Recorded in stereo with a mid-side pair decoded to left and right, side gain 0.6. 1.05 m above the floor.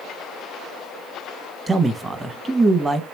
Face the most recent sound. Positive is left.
turn(degrees=-20)